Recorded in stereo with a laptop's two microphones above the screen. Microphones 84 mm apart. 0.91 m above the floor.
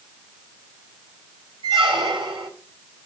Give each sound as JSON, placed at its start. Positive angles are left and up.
{"t": 1.6, "sound": "a squeak", "side_deg": -85, "distance_m": 3.0}